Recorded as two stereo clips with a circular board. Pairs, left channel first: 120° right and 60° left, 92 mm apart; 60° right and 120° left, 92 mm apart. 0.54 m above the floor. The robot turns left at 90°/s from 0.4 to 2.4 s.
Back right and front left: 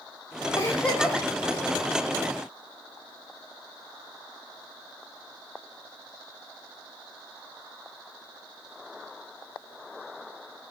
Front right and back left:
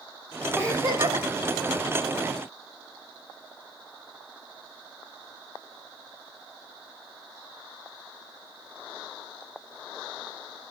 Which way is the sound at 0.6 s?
170° right.